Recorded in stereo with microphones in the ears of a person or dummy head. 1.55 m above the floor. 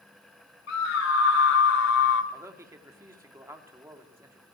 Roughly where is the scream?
Left.